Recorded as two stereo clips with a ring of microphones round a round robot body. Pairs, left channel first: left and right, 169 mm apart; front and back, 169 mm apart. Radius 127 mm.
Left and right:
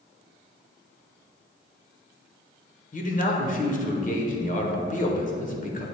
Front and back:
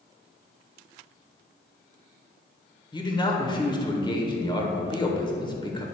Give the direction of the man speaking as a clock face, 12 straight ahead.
10 o'clock.